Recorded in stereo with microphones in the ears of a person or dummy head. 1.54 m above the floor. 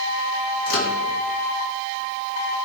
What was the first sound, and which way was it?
A microwave, 65° left (ahead or behind).